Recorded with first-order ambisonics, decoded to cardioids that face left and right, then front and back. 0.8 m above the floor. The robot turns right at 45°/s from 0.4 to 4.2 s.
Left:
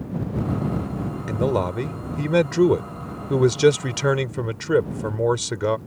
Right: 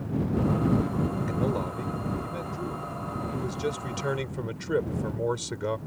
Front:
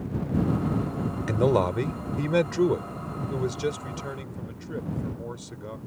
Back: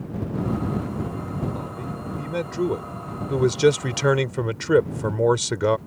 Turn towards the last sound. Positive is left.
turn(degrees=155)